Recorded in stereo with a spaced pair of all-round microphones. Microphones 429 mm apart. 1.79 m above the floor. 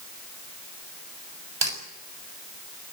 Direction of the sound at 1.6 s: 70° right (ahead or behind).